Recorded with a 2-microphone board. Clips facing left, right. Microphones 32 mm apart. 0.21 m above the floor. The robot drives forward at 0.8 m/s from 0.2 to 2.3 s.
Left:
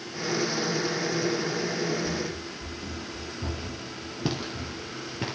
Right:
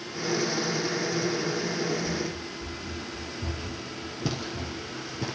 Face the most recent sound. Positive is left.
turn(degrees=35)  # may be behind; listen again after turning